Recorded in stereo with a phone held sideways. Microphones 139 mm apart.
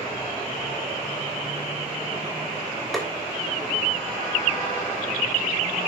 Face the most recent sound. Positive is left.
turn(degrees=0)  # may be behind; listen again after turning